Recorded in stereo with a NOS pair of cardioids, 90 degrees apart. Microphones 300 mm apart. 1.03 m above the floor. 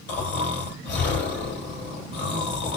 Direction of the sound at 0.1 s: 35° left.